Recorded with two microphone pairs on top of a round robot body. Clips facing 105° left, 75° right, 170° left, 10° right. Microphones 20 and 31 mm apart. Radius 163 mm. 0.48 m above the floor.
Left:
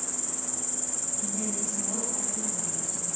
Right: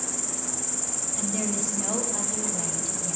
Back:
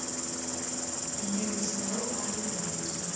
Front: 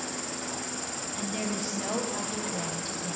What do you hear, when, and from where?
0.0 s an insect: 20° right, 0.8 m
1.2 s a woman speaking: 50° right, 5 m